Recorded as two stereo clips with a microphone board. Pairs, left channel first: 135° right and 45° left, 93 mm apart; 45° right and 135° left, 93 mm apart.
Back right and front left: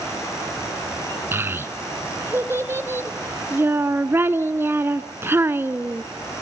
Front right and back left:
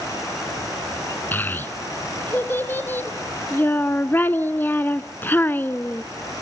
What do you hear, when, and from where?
1.3 s a child speaking: 5° left, 0.8 m